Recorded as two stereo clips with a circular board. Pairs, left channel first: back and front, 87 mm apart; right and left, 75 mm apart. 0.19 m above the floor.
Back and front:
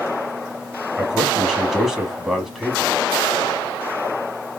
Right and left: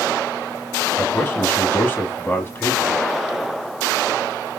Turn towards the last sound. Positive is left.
turn(degrees=-85)